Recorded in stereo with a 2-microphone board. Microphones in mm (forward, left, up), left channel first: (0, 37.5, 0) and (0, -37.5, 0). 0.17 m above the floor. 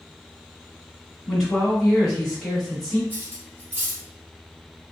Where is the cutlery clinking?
30° right (ahead or behind), 1.1 m.